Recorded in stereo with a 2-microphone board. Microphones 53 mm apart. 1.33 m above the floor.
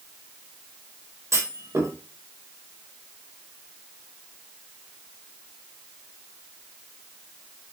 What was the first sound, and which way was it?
A clunk, 65° right (ahead or behind).